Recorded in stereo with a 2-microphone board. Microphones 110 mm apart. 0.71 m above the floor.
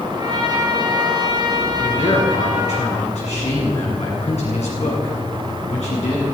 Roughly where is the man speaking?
Left.